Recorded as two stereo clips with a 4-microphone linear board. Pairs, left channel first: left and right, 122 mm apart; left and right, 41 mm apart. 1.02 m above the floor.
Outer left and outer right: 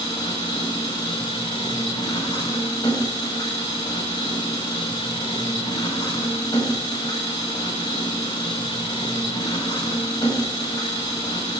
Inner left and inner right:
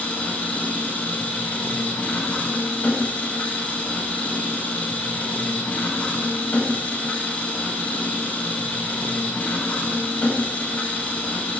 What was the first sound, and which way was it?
An engine running, 40° left (ahead or behind).